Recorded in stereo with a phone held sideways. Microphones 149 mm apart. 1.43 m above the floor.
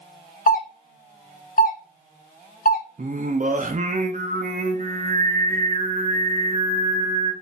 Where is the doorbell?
75° left (ahead or behind), 0.6 m.